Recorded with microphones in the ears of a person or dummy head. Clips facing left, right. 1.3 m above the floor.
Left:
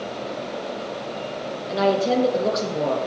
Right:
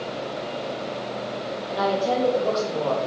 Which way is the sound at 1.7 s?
30° left (ahead or behind).